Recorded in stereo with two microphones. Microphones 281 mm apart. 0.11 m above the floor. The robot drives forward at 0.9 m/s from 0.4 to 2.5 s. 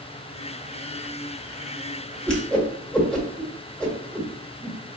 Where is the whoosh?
5° left (ahead or behind), 1.6 m.